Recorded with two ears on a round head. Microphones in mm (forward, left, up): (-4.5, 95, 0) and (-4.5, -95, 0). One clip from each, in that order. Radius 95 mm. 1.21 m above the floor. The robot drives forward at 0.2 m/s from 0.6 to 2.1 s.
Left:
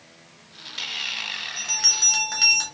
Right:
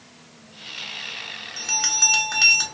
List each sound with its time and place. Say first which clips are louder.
1.6 s a bell: even; centre (ahead or behind), 0.9 m